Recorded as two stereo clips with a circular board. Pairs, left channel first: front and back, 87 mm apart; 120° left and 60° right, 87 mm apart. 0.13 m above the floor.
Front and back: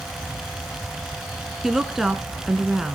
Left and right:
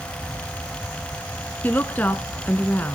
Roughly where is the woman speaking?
Left.